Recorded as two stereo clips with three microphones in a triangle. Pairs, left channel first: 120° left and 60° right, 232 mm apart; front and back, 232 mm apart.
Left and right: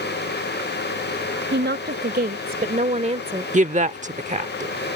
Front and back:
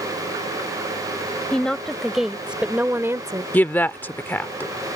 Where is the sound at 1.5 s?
85° right; by 3.4 s 115° right.